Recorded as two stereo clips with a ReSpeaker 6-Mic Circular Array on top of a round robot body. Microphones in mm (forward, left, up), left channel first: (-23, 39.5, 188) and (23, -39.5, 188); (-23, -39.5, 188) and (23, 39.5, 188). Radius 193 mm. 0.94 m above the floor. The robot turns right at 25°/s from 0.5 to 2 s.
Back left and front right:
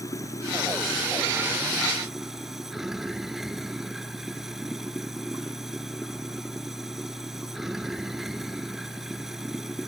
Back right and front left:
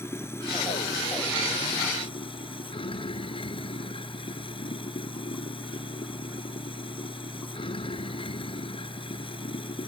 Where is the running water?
175° left; by 9.9 s 145° right.